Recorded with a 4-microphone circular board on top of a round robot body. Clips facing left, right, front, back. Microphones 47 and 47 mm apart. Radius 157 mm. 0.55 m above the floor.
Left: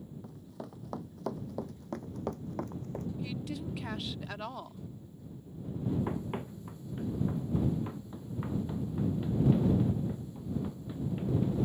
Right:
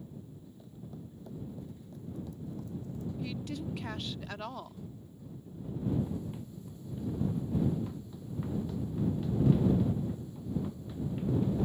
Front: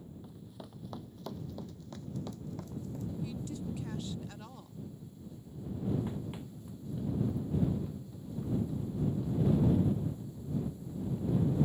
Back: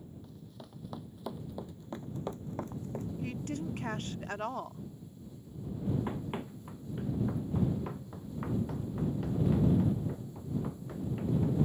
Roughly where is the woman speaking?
Behind.